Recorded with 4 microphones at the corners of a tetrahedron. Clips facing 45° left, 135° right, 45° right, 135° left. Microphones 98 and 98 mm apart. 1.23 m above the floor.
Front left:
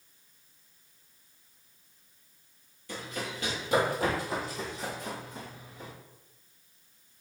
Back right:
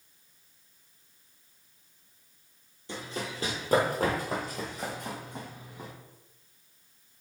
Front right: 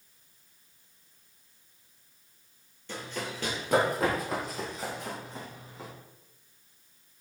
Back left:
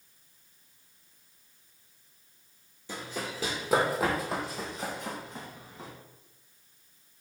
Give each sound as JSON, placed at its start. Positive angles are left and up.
{"t": 2.9, "sound": "running footsteps", "azimuth_deg": -160, "distance_m": 1.3}